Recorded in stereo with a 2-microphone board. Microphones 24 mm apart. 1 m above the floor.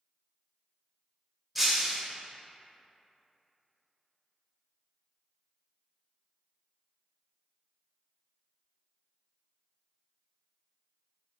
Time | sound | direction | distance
1.6 | breaking glass | centre (ahead or behind) | 0.8 m